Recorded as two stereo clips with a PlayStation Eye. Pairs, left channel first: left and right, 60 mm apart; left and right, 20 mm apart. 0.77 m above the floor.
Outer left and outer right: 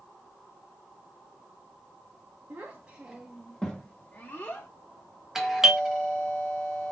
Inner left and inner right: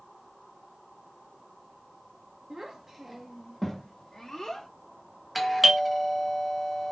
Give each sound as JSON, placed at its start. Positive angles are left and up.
{"t": 2.5, "sound": "a child speaking", "side_deg": -40, "distance_m": 0.9}
{"t": 5.3, "sound": "a doorbell", "side_deg": -5, "distance_m": 0.8}